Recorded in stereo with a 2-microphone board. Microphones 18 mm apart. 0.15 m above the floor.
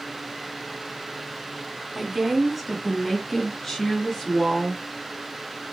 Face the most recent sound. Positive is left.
turn(degrees=25)  # may be behind; listen again after turning